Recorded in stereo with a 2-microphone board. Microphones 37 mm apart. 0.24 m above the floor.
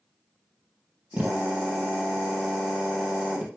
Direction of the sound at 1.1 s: 45° right (ahead or behind).